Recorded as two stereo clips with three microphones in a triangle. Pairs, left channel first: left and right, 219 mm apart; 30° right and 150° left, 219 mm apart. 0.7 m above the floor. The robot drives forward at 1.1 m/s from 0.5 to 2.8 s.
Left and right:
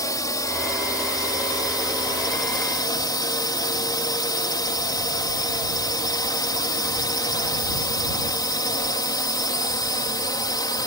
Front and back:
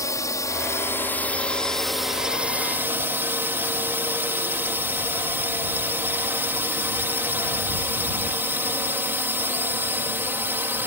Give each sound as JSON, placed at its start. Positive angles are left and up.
{"t": 0.0, "sound": "a drone", "azimuth_deg": 30}